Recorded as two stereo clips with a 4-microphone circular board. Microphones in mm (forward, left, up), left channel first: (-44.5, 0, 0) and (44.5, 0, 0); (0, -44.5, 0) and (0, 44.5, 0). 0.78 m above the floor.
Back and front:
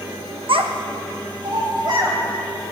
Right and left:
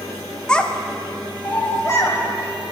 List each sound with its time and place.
0.5 s a child speaking: 10° right, 0.7 m; by 2.2 s 35° right, 1.9 m